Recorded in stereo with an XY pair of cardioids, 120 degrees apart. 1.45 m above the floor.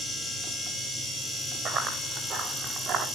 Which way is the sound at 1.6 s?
60° right.